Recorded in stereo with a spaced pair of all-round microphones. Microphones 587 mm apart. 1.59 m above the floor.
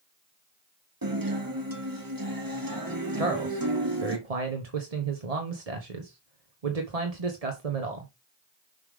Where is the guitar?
35° right (ahead or behind), 1.7 m.